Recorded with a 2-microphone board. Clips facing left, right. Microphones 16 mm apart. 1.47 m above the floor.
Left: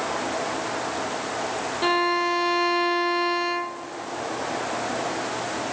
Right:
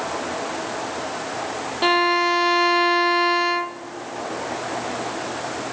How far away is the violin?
About 0.7 m.